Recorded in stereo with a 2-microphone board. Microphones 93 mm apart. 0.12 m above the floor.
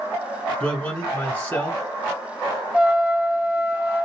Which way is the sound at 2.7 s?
15° right (ahead or behind).